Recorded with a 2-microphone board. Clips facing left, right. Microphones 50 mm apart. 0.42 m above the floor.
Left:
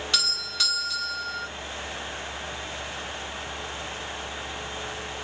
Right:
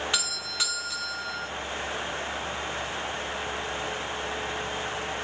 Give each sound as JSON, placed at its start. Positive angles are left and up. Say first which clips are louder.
{"t": 0.1, "sound": "a doorbell", "louder": "left 1 dB", "side_deg": -15, "distance_m": 1.7}